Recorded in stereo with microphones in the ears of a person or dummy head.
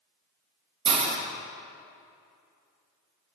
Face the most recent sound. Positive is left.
turn(degrees=-25)  # may be behind; listen again after turning